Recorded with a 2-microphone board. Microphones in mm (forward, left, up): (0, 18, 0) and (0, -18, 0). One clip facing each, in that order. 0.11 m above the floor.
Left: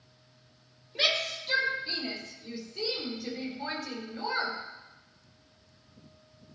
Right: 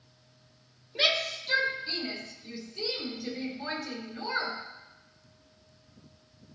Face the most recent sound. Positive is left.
turn(degrees=35)  # may be behind; listen again after turning